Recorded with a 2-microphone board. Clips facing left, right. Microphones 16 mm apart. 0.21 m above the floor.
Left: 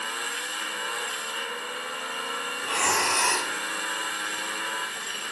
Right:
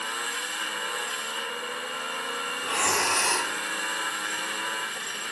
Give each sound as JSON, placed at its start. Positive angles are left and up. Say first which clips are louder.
{"t": 2.6, "sound": "breathing", "louder": "left 1 dB", "side_deg": 25, "distance_m": 1.7}